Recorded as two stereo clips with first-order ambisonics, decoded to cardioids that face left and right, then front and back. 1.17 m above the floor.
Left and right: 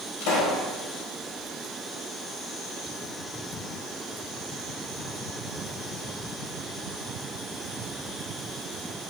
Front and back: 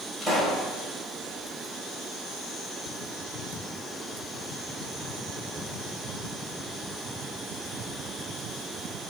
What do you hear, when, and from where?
0.2 s a pop: 95° left, 3 m